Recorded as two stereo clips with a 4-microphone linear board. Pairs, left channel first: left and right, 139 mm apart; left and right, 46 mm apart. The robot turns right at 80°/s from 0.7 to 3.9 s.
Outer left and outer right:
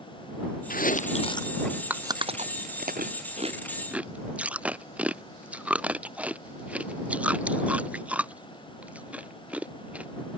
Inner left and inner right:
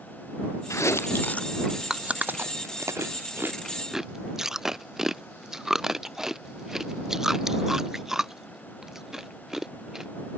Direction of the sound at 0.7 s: 85° left.